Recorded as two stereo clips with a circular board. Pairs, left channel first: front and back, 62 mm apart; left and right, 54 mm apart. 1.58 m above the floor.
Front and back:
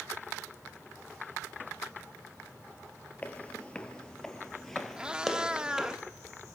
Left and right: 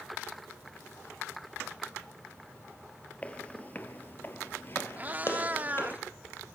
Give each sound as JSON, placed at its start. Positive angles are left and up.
{"t": 3.2, "sound": "footsteps", "azimuth_deg": 45, "distance_m": 1.8}
{"t": 5.0, "sound": "a cat meowing", "azimuth_deg": -115, "distance_m": 1.3}